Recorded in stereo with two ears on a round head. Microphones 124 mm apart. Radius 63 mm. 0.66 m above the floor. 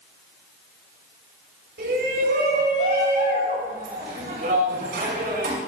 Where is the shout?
75° right (ahead or behind), 6.5 m.